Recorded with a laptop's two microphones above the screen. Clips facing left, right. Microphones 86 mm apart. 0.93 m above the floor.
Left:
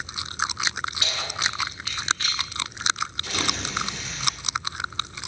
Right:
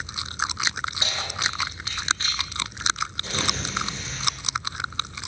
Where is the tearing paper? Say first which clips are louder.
Even; 25° right (ahead or behind), 4.5 m.